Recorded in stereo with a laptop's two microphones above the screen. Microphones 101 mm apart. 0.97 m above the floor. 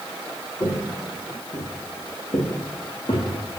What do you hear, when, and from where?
0.6 s footsteps: 35° left (ahead or behind), 2.5 m; by 3.3 s 45° left (ahead or behind), 3.5 m